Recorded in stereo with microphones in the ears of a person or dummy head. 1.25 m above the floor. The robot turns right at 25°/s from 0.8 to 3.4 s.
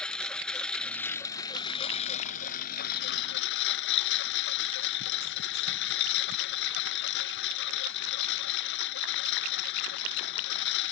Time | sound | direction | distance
0.0 | a lawn mower | straight ahead | ?